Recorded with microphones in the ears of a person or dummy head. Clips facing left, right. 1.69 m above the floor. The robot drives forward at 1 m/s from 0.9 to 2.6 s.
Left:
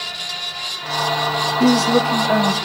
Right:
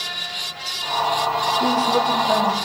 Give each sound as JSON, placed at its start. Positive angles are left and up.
{"t": 1.6, "sound": "a woman speaking", "side_deg": 40, "distance_m": 1.0}